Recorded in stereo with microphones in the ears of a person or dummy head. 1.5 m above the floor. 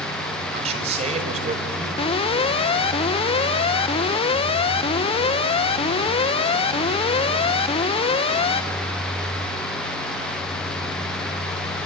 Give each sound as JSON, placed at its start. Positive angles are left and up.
{"t": 0.5, "sound": "a man speaking", "side_deg": -40, "distance_m": 5.0}
{"t": 2.0, "sound": "an alarm", "side_deg": 30, "distance_m": 1.1}